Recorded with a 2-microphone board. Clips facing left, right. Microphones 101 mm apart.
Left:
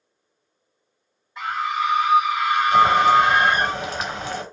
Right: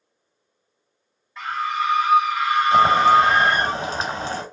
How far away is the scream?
About 3 m.